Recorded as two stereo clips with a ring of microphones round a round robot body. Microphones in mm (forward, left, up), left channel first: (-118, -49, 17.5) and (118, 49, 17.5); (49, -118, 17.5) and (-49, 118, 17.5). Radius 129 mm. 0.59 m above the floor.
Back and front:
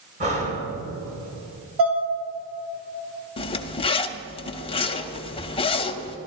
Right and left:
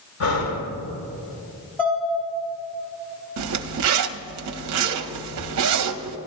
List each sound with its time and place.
0.2 s breathing: 40° right, 2.5 m
1.8 s dishes clattering: 15° left, 3 m
3.4 s a zipper: 135° left, 0.6 m